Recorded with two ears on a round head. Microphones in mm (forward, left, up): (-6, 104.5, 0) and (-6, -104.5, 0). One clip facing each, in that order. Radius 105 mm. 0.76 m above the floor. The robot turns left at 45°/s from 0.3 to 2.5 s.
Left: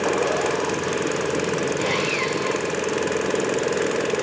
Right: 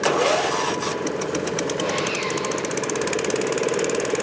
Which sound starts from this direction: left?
Sawing, at 1.8 s.